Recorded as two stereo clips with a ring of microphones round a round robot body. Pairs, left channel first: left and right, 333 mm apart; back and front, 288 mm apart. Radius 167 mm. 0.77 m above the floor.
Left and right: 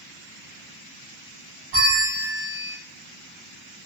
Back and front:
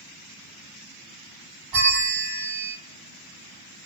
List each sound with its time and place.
1.7 s a bell: 35° right, 1.0 m